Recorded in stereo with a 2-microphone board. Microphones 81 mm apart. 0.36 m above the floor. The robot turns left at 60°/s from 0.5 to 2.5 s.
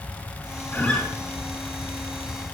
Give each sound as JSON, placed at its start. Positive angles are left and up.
{"t": 0.7, "sound": "a guitar", "side_deg": 25, "distance_m": 4.0}